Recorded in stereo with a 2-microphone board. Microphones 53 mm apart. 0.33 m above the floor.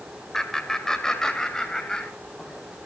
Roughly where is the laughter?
Centre.